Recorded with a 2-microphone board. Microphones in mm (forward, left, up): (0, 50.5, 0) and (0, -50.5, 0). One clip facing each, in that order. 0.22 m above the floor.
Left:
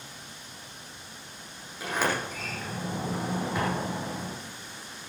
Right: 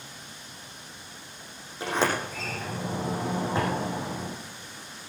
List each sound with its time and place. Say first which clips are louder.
1.8 s a sliding door: right 2 dB; 25° right (ahead or behind), 7.5 m